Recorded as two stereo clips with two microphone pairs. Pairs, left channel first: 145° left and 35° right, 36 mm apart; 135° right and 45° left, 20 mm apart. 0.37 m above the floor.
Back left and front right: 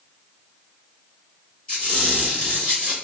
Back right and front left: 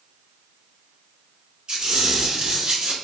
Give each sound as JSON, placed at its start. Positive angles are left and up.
{"t": 1.7, "sound": "a squeak", "azimuth_deg": 75, "distance_m": 1.7}